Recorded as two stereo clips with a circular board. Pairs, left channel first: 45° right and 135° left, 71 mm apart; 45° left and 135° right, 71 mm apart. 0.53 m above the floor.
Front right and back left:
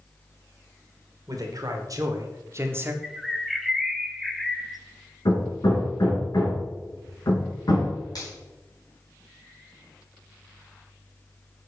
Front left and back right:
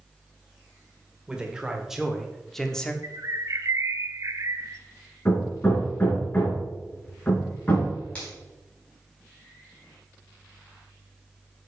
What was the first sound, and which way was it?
A man speaking, 150° left.